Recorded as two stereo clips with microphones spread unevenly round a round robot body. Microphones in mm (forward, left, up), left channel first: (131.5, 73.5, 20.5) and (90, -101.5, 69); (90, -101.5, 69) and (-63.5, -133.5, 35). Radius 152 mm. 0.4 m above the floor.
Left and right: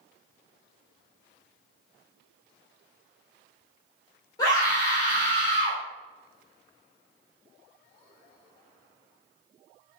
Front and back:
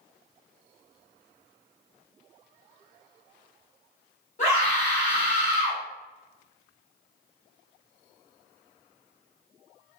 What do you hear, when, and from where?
4.4 s a scream: 45° left, 1.5 m